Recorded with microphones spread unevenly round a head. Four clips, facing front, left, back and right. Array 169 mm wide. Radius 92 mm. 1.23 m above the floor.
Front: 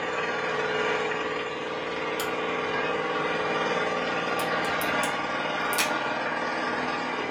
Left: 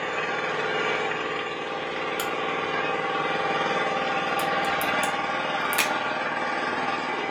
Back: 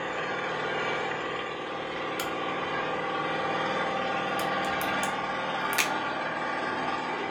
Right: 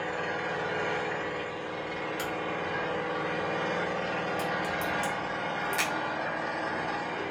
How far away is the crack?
About 0.8 m.